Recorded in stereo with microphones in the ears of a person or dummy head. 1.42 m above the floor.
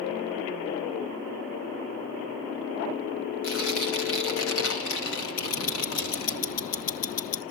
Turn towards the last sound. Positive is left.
turn(degrees=35)  # may be behind; listen again after turning